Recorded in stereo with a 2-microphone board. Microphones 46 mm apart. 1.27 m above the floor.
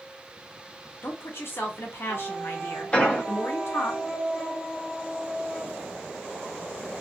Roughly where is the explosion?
Left.